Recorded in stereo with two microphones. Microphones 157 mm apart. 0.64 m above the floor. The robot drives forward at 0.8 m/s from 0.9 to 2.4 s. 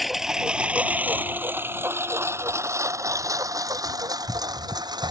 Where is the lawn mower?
Centre (ahead or behind); by 5.1 s 25° right (ahead or behind).